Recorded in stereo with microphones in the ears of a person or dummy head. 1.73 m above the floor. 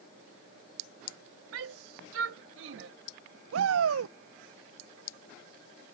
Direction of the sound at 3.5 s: 75° right (ahead or behind).